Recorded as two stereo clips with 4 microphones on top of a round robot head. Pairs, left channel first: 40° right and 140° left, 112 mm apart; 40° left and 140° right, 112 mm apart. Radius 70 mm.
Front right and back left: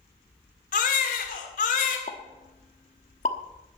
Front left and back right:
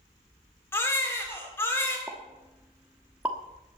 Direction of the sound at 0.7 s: 30° right.